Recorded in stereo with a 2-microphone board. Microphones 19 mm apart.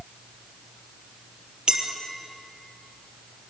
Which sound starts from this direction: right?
A clink, at 1.7 s.